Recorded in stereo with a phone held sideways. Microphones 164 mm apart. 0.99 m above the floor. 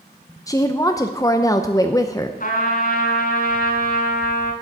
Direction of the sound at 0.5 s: 20° left (ahead or behind).